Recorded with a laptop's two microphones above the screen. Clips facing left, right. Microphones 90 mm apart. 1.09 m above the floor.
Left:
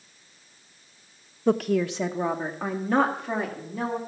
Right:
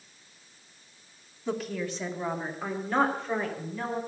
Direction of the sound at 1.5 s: 55° left (ahead or behind).